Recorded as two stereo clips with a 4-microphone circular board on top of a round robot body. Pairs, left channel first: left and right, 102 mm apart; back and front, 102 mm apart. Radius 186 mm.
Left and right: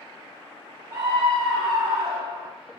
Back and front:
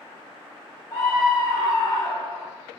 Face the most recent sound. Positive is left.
turn(degrees=-120)